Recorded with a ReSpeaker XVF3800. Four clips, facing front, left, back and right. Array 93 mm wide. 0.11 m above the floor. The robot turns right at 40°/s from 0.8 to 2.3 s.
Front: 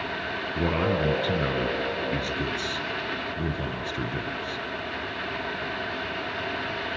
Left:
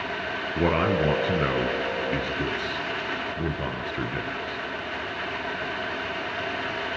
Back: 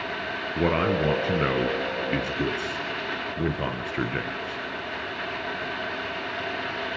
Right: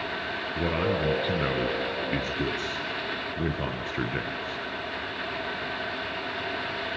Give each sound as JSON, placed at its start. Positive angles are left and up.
{"t": 0.6, "sound": "a man speaking", "azimuth_deg": 135, "distance_m": 1.8}